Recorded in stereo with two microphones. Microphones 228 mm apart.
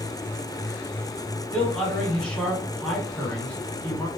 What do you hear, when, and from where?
1.5 s a man speaking: 5° left (ahead or behind), 1.1 m